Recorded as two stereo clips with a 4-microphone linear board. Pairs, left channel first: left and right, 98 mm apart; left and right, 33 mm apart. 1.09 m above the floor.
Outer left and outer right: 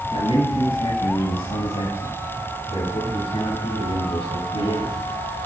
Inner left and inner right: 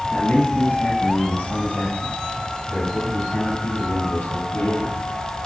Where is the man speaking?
85° left, 8 m; by 4.9 s 70° left (ahead or behind), 7 m.